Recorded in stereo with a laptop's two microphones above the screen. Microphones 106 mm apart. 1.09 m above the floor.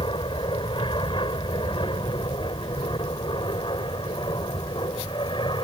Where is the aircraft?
50° left (ahead or behind); by 5.6 s 45° left (ahead or behind).